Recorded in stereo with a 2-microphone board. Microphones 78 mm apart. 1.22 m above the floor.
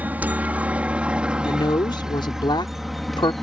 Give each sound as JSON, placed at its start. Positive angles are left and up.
{"t": 0.0, "sound": "a helicopter", "side_deg": -20}
{"t": 1.4, "sound": "a woman speaking", "side_deg": 80}